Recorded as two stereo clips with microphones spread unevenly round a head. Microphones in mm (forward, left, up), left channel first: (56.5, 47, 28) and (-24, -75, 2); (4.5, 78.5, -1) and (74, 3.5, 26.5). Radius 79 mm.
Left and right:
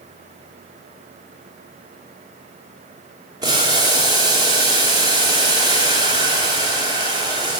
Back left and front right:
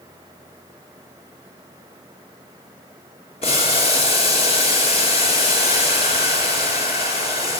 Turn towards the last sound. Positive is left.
turn(degrees=175)